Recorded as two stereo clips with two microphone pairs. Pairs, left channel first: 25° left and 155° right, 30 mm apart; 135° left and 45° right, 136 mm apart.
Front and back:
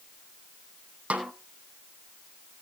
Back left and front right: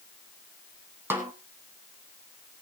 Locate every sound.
1.1 s a snare drum: 120° right, 1.8 m